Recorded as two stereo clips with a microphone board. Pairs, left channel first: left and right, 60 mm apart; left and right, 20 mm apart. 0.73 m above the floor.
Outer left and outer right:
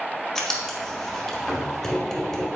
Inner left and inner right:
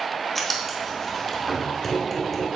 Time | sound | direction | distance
0.3 | writing | 5° left (ahead or behind) | 1.4 m